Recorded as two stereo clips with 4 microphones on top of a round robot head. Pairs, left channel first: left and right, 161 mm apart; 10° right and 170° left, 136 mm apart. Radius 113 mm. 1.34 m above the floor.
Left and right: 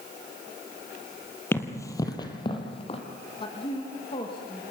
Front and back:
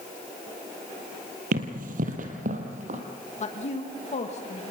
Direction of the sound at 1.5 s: 165° left.